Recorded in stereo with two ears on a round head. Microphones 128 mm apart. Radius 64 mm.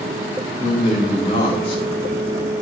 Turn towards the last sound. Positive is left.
turn(degrees=45)  # may be behind; listen again after turning